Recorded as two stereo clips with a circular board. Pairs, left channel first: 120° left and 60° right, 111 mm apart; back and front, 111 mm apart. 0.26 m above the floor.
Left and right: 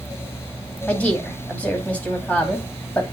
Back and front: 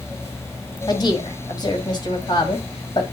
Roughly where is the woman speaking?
Behind.